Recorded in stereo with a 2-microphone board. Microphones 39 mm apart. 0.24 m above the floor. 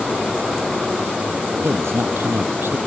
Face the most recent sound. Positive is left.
turn(degrees=-80)